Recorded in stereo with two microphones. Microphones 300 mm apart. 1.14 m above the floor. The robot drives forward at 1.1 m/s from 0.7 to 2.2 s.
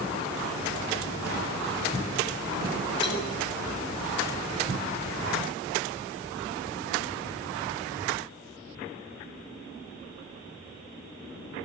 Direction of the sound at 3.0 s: 35° left (ahead or behind).